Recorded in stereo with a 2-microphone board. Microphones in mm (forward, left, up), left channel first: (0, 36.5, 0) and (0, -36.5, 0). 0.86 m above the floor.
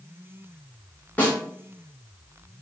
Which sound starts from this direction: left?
A snare drum, at 1.2 s.